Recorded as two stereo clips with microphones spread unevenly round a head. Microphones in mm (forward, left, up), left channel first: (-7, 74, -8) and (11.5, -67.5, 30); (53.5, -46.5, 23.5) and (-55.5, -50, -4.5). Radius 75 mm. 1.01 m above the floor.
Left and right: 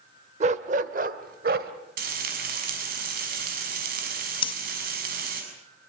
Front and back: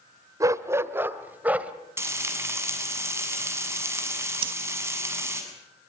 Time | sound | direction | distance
0.4 | a dog barking | 110° right | 1.3 m
2.0 | frying | 110° right | 6.5 m
4.4 | breathing | 145° left | 0.9 m